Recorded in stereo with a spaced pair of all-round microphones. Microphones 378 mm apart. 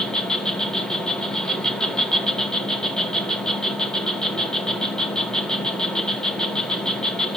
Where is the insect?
Centre (ahead or behind), 0.8 m.